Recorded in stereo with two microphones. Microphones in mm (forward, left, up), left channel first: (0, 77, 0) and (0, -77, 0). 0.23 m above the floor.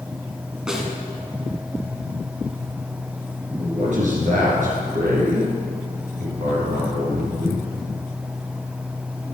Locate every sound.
0.7 s a snare drum: 5° right (ahead or behind), 1.6 m
3.6 s a man speaking: 55° right (ahead or behind), 3 m